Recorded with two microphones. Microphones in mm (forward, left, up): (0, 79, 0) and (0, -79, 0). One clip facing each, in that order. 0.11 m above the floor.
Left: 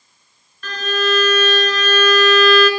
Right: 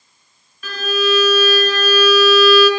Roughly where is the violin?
Centre.